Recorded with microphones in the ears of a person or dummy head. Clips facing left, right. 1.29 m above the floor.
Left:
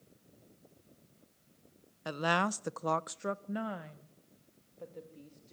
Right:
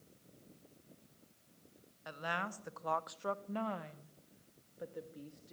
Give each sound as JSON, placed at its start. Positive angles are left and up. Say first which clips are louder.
{"t": 2.0, "sound": "a woman speaking", "louder": "left 10 dB", "side_deg": 75, "distance_m": 0.7}